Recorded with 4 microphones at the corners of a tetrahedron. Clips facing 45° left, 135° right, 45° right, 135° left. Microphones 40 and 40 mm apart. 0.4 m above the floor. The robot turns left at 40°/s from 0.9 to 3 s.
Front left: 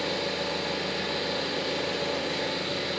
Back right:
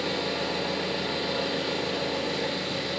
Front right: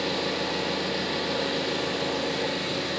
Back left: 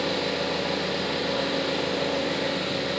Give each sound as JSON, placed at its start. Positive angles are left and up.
{"t": 0.0, "sound": "an engine running", "azimuth_deg": -140, "distance_m": 1.0}